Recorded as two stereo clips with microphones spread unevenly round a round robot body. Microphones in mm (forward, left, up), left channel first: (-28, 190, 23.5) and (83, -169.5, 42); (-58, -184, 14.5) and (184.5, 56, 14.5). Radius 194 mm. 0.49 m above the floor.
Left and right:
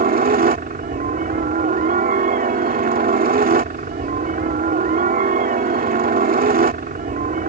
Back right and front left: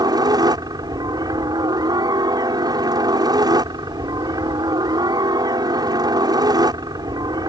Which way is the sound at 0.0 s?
25° right.